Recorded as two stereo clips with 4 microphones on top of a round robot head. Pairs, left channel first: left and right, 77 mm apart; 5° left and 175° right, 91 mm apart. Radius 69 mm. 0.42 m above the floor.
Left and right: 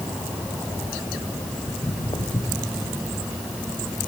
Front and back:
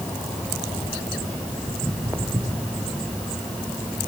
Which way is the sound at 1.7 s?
120° left.